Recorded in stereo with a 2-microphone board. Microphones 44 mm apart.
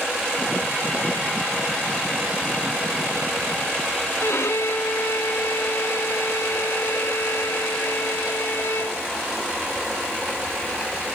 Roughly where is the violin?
Left.